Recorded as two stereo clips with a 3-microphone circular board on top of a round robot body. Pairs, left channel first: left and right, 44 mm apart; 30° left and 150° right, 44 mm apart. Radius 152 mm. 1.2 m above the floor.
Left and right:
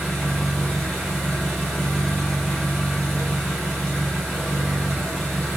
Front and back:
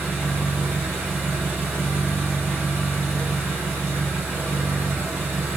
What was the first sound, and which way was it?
An engine running, 175° left.